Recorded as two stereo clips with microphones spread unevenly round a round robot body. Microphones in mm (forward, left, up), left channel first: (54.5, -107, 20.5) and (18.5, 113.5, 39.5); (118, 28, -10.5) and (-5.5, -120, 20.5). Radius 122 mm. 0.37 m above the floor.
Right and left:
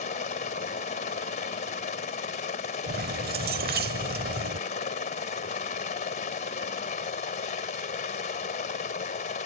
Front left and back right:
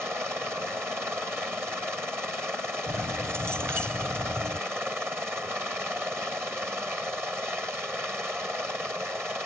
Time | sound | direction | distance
0.0 | a helicopter | 45° right | ?
2.9 | keys jangling | 145° left | ?